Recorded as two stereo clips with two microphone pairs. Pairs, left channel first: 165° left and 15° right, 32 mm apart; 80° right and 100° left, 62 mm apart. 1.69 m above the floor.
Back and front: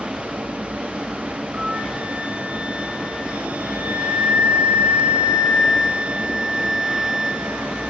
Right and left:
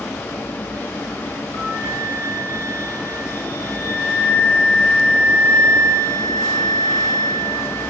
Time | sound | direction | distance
0.0 | running water | 25° right | 1.8 m
1.5 | a flute | 60° right | 2.5 m